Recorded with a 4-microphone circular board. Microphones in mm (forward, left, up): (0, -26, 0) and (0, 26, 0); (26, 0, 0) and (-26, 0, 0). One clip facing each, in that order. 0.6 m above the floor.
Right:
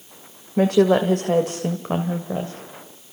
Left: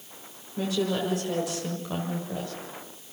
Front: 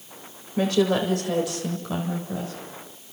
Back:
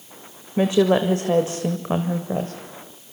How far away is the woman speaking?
About 1.9 m.